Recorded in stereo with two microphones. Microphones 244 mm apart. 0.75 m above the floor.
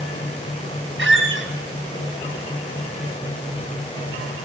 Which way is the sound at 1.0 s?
55° right (ahead or behind).